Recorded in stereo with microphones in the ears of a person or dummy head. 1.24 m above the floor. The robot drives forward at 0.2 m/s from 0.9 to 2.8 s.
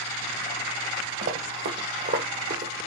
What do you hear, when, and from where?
1.2 s running footsteps: 45° right (ahead or behind), 2 m; by 2.9 s 35° right (ahead or behind), 1.6 m